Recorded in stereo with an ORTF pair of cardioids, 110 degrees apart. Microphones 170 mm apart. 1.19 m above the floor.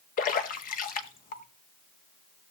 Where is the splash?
55° left, 1.6 m.